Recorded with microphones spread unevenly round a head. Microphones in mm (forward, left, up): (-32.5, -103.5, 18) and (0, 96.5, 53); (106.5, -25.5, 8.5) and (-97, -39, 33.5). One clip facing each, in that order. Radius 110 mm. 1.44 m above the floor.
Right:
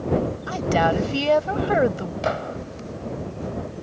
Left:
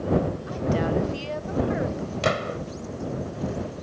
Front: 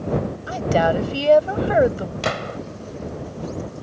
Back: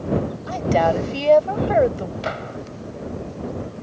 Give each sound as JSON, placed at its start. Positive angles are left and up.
{"t": 0.5, "sound": "a woman speaking", "azimuth_deg": -80}
{"t": 2.2, "sound": "a gunshot", "azimuth_deg": 40}